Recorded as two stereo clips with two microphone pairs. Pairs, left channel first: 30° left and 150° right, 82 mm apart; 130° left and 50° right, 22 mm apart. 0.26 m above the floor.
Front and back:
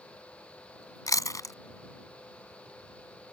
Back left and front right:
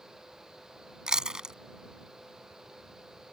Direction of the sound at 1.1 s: 5° right.